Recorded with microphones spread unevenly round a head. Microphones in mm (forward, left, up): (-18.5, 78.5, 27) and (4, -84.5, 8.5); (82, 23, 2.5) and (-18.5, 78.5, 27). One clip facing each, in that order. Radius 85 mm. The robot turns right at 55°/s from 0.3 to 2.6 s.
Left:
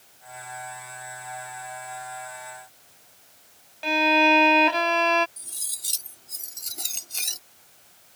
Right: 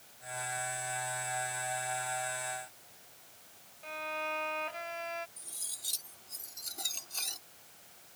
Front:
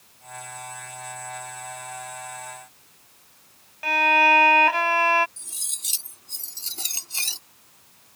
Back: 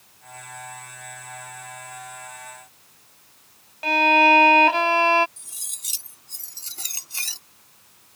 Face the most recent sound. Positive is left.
turn(degrees=35)